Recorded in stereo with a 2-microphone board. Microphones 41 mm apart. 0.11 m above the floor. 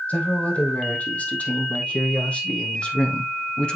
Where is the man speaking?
35° left (ahead or behind), 3.5 m; by 3.8 s 25° left (ahead or behind), 1.6 m.